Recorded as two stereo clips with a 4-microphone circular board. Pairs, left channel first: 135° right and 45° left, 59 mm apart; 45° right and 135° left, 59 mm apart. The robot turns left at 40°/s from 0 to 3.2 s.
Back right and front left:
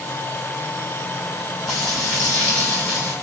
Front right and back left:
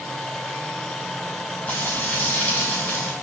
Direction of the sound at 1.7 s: 55° right.